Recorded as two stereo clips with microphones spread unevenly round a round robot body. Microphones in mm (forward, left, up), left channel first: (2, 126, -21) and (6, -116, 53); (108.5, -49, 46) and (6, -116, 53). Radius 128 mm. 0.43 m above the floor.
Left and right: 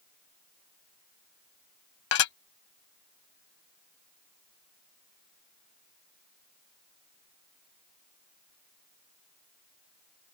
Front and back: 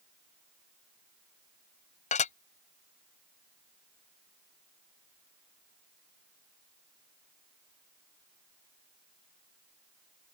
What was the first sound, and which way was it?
Dishes clattering, 60° left.